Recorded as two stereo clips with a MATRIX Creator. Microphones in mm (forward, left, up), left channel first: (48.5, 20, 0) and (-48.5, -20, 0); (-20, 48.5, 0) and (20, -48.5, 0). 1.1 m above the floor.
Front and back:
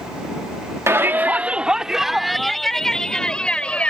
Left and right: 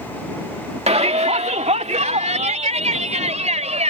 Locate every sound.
0.9 s a shout: 90° right; by 3.9 s 55° right